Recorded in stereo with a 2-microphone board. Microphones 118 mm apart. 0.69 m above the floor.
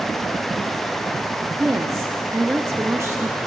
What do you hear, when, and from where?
1.6 s a woman speaking: 25° right (ahead or behind), 0.7 m